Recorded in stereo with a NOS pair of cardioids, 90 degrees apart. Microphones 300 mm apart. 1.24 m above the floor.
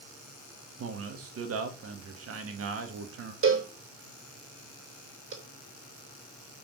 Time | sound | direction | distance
0.8 | a man speaking | 50° right | 2.0 m
3.4 | a cowbell | 45° right | 3 m